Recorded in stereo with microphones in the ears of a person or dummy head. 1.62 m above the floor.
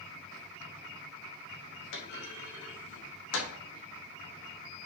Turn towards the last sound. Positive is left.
turn(degrees=65)  # may be behind; listen again after turning